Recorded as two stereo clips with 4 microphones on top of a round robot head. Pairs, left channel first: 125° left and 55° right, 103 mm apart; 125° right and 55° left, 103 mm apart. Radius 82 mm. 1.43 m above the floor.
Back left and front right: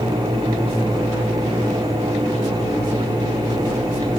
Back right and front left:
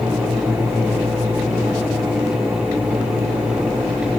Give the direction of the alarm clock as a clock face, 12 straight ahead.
No alarm clock in this recording.